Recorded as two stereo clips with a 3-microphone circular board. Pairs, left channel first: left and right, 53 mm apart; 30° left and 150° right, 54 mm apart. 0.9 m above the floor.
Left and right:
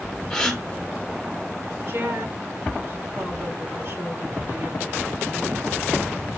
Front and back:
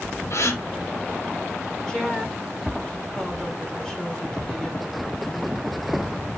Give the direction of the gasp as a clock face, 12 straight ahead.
12 o'clock.